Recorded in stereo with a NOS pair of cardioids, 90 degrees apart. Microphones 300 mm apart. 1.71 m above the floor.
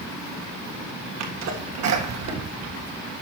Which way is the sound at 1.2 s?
60° right.